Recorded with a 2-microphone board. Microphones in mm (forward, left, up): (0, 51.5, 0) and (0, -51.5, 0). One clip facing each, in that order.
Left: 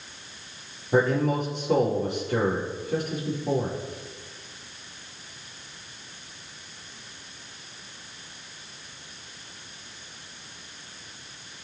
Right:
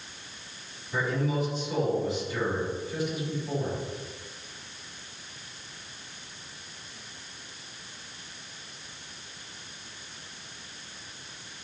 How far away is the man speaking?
About 5.5 m.